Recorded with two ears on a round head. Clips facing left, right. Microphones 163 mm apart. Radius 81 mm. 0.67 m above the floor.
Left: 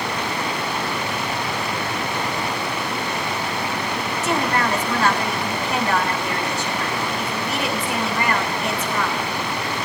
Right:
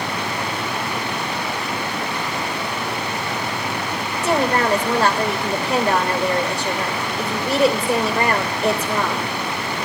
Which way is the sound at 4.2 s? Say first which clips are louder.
Right 4 dB; 30° right (ahead or behind).